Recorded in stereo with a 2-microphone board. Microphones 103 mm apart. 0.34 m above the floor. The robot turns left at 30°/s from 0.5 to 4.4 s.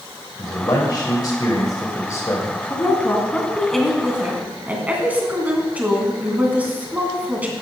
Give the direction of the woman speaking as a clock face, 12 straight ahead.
11 o'clock.